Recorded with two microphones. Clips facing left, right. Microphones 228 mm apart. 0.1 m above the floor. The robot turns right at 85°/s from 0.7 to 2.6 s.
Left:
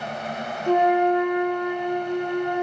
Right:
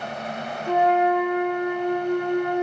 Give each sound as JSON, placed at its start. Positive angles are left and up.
{"t": 0.7, "sound": "a flute", "azimuth_deg": 135, "distance_m": 4.5}